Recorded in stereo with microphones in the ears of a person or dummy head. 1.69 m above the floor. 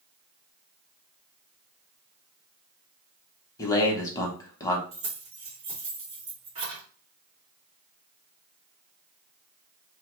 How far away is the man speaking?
About 0.9 m.